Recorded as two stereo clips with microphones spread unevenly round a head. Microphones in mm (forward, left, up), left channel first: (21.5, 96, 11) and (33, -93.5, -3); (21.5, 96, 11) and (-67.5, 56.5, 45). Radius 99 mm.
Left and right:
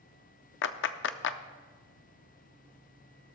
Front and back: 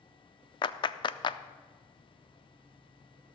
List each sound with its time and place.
0.6 s a clap: 70° left, 0.5 m